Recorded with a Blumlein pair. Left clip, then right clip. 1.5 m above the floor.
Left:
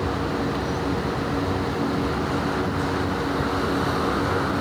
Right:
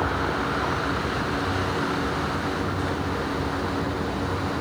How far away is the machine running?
About 0.8 m.